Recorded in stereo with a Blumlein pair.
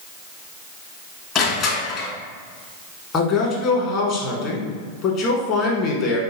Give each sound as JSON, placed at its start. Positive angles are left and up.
{"t": 1.4, "sound": "crushing", "azimuth_deg": 30, "distance_m": 1.1}
{"t": 3.1, "sound": "a man speaking", "azimuth_deg": 35, "distance_m": 1.1}